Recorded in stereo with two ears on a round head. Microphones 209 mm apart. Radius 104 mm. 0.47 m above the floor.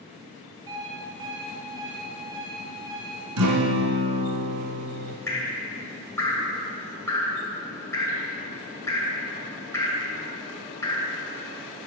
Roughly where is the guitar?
Right.